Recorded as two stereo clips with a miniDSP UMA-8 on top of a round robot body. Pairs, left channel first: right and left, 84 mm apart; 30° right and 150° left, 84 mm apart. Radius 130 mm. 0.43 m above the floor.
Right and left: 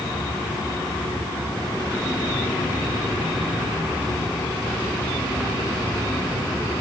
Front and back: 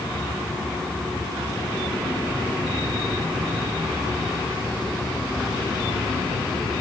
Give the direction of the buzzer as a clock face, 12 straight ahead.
I don't hear a buzzer.